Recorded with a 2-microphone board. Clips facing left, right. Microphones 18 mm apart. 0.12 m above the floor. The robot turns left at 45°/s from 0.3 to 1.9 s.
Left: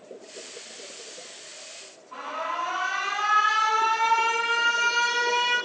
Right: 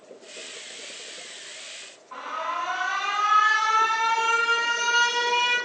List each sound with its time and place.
2.1 s an alarm: 60° right (ahead or behind), 6.5 m